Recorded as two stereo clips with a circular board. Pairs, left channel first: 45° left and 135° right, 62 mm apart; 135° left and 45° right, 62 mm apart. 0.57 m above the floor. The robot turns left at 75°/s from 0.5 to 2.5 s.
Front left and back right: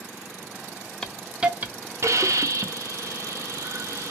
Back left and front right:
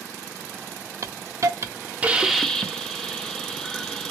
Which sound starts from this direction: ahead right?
A hiss, at 1.0 s.